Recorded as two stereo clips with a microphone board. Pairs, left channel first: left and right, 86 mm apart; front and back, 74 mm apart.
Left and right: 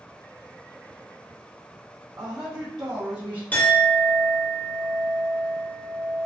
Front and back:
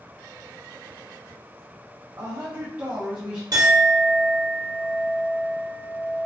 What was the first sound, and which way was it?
A woman speaking, 160° right.